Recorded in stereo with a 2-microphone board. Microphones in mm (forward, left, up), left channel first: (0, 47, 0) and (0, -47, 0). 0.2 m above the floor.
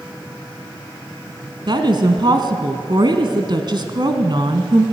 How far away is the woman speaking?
About 2 m.